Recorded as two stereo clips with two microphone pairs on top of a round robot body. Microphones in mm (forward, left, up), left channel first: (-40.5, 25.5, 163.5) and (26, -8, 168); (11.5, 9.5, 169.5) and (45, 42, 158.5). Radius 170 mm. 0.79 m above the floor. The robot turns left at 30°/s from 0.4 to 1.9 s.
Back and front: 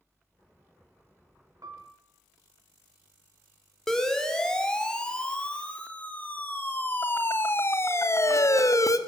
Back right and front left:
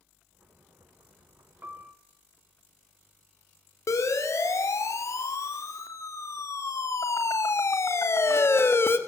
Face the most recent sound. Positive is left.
turn(degrees=-175)